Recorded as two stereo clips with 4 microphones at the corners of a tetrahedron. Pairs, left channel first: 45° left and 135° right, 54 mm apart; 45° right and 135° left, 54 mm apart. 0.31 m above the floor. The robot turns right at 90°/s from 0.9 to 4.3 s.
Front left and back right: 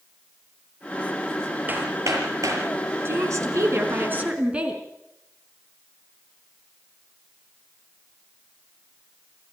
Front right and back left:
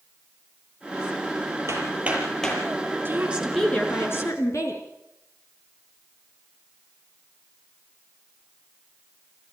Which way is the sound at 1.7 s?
165° left.